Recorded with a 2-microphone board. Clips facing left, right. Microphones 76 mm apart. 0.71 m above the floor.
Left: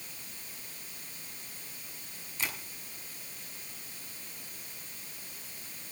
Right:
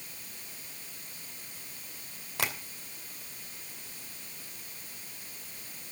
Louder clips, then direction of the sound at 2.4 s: Right 4 dB; 75° right (ahead or behind).